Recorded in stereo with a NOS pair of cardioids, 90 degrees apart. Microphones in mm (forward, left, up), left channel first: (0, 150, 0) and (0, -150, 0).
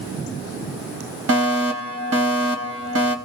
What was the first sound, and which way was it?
A fire alarm, 50° right.